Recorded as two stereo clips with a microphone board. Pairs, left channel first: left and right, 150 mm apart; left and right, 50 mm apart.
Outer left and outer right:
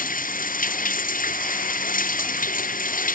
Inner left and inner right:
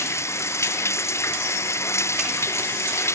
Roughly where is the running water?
Left.